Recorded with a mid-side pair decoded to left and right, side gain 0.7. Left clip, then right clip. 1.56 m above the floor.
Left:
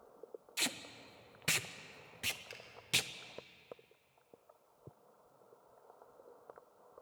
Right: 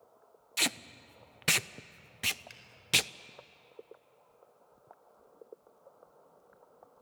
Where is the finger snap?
5° right, 5 m.